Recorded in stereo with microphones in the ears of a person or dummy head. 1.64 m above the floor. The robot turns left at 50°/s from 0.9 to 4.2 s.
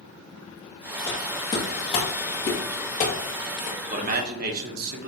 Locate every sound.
1.1 s footsteps: 15° left (ahead or behind), 2.5 m; by 3.8 s 55° left (ahead or behind), 2.5 m
3.9 s a man speaking: 35° right (ahead or behind), 1.4 m; by 5.1 s 50° right (ahead or behind), 1.4 m